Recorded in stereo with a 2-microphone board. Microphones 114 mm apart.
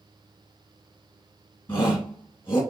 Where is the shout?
25° left (ahead or behind), 1.9 m.